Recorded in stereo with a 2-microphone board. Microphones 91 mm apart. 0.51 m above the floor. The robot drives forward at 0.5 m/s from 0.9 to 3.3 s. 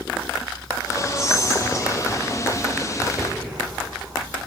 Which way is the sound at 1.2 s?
5° right (ahead or behind).